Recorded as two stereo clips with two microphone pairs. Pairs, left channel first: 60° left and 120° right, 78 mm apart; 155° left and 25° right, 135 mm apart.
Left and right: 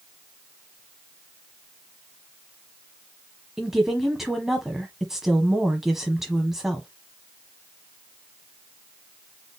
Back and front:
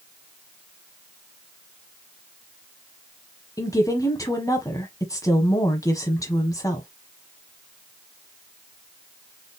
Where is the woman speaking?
160° left, 1.0 m.